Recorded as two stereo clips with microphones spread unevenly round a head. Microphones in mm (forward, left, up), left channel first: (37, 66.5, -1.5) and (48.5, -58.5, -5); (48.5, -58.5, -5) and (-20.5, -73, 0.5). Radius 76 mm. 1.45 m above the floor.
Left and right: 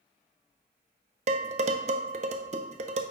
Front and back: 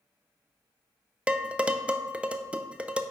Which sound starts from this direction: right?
Dishes clattering, at 1.3 s.